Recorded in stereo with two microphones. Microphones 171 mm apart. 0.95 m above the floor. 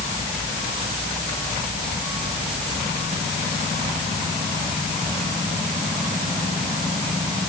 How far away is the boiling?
No boiling in this recording.